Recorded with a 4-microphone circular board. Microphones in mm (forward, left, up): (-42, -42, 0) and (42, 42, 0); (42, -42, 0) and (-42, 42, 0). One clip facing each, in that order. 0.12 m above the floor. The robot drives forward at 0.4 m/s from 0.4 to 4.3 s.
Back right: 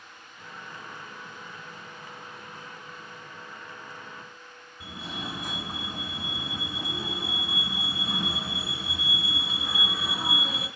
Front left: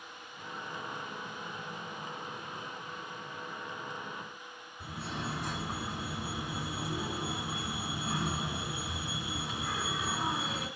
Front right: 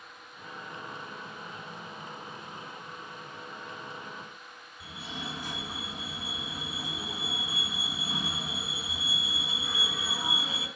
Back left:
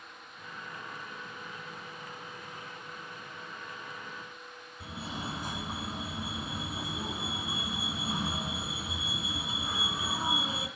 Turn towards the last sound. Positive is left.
turn(degrees=140)